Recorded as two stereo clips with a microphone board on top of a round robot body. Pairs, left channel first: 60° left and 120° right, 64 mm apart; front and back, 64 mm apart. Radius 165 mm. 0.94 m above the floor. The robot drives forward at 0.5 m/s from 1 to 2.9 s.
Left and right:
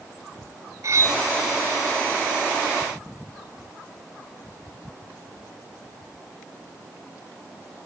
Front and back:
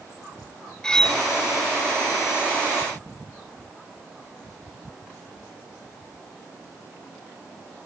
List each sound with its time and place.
0.8 s cutlery clinking: 75° right; by 1.2 s 85° right